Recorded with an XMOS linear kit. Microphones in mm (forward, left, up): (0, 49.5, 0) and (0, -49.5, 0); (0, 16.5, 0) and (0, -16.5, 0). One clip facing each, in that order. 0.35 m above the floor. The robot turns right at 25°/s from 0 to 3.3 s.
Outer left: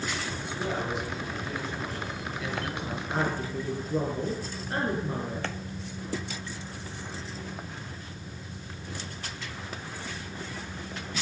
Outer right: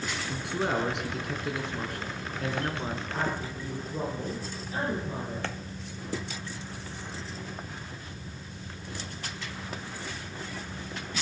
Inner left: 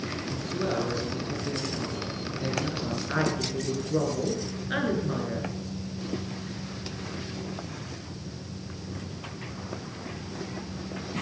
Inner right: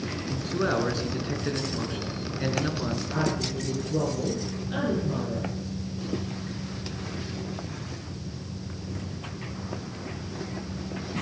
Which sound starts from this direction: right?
A man speaking, at 0.3 s.